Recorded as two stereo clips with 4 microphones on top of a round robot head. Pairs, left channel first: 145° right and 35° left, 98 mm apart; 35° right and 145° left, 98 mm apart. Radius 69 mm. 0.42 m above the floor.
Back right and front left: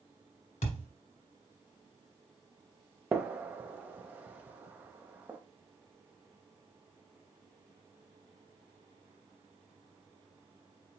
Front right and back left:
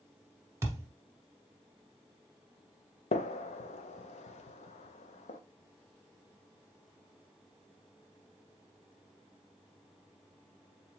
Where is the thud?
150° right, 1.4 m.